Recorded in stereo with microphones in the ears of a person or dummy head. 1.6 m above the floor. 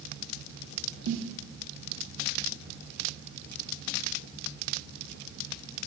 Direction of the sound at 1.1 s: 70° right (ahead or behind).